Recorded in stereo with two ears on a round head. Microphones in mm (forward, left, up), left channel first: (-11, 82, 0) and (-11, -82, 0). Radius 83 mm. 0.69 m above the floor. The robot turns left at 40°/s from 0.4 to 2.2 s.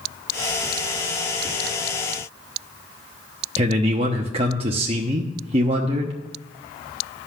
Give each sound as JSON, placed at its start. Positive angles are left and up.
{"t": 3.6, "sound": "a man speaking", "side_deg": -30, "distance_m": 0.9}